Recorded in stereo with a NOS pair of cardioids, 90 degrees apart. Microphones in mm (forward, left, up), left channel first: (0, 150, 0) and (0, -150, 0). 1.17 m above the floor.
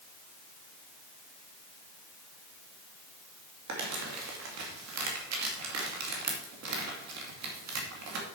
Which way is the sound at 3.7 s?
65° right.